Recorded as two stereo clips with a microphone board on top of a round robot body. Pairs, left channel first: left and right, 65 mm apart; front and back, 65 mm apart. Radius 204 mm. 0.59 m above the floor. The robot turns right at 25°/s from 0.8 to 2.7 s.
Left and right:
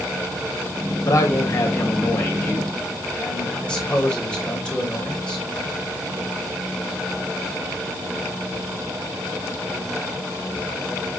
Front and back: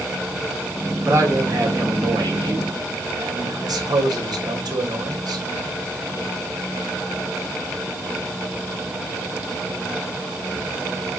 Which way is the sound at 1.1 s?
125° left.